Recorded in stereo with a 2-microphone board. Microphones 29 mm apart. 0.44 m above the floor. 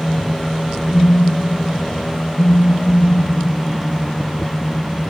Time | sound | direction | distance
0.9 | a phone buzzing | 50° left (ahead or behind) | 1.5 m